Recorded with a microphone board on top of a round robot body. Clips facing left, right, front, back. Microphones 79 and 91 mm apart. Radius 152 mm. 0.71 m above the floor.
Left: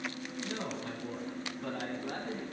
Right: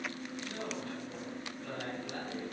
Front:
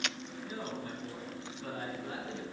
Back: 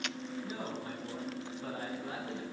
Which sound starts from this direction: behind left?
A man speaking, at 0.4 s.